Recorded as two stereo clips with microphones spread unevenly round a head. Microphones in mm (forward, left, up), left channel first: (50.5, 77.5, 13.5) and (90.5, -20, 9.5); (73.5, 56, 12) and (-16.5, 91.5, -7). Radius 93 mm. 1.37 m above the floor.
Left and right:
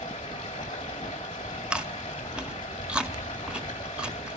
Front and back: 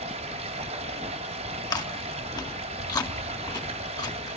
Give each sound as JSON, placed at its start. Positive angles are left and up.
{"t": 0.0, "sound": "running water", "azimuth_deg": 180, "distance_m": 4.0}
{"t": 1.7, "sound": "chewing", "azimuth_deg": 15, "distance_m": 2.0}